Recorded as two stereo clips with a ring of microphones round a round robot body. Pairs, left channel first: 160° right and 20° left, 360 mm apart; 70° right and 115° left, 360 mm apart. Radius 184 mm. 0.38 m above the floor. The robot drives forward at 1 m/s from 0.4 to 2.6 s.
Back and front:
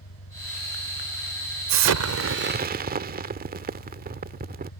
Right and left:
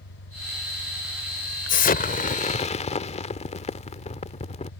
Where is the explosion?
5° right; by 4.7 s 15° right.